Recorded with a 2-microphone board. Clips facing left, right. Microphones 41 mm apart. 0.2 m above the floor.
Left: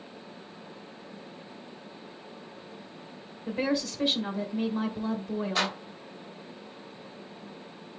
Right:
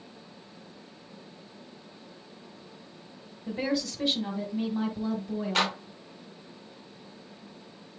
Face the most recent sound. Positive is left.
turn(degrees=-80)